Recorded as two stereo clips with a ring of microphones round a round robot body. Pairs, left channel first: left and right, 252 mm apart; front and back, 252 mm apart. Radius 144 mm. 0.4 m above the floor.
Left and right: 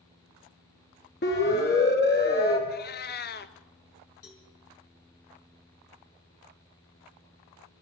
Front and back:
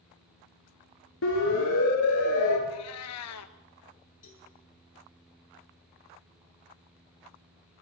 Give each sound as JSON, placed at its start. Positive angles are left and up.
{"t": 1.2, "sound": "a siren", "azimuth_deg": 45, "distance_m": 6.5}
{"t": 2.7, "sound": "a cat meowing", "azimuth_deg": 40, "distance_m": 1.1}
{"t": 4.2, "sound": "a cowbell", "azimuth_deg": 60, "distance_m": 6.0}